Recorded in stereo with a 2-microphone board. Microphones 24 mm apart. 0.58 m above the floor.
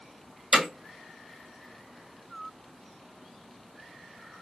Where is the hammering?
20° right (ahead or behind), 2 m.